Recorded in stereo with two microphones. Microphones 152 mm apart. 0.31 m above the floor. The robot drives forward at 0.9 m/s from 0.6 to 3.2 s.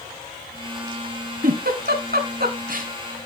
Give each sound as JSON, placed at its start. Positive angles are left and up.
{"t": 1.4, "sound": "a giggle", "side_deg": -65, "distance_m": 1.5}